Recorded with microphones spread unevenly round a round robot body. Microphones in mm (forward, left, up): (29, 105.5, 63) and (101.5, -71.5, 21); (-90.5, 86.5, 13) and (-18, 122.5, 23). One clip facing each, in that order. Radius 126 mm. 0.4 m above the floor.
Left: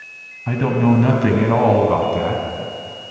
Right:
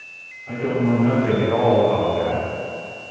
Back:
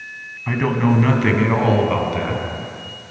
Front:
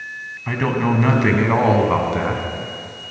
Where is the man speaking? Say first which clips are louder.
Left 4 dB, back 1 dB; 120° left, 4 m; by 2.4 s 85° left, 5 m.